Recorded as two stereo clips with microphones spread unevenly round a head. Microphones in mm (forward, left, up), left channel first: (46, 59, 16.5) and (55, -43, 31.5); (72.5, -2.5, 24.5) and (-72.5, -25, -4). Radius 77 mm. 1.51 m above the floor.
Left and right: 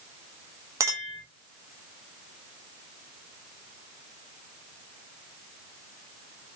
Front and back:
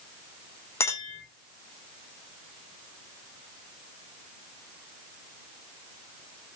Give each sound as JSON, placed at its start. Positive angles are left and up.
{"t": 0.8, "sound": "a clink", "azimuth_deg": -45, "distance_m": 0.9}